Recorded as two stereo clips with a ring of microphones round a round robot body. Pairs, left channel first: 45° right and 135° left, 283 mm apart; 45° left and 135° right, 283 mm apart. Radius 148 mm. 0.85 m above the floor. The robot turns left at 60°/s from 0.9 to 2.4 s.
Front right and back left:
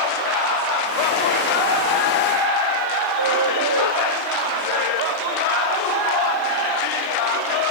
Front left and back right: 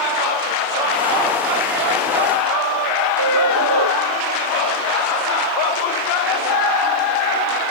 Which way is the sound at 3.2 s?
Straight behind.